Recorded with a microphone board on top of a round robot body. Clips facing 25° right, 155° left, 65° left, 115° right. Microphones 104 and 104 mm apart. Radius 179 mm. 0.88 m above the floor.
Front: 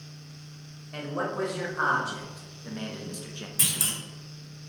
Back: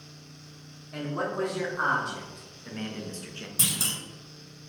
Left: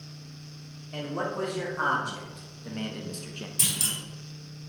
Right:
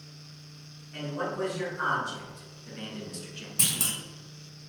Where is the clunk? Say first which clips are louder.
Back 2 dB, right 3 dB; 135° right, 2 m.